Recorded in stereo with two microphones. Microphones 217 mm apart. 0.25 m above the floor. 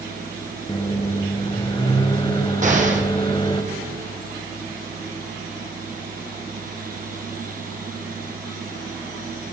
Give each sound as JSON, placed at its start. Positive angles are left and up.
{"t": 0.7, "sound": "a microwave", "side_deg": 25, "distance_m": 0.9}
{"t": 2.6, "sound": "an explosion", "side_deg": -35, "distance_m": 1.8}